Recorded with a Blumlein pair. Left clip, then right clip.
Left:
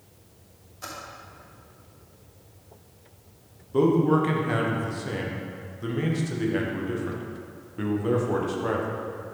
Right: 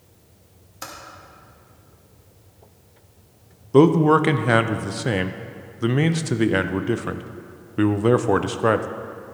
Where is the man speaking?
30° right, 0.5 m.